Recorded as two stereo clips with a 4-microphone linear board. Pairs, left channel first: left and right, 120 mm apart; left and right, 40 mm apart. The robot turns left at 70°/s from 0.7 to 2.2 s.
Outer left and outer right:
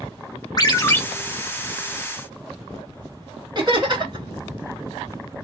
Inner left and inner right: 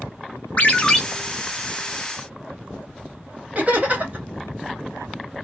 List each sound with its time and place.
0.6 s a ringtone: 35° left (ahead or behind), 0.6 m; by 1.0 s 15° left (ahead or behind), 0.6 m
3.5 s laughter: 40° right (ahead or behind), 1.4 m